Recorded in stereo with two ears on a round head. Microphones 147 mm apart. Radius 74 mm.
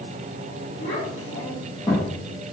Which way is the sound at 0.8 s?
50° left (ahead or behind).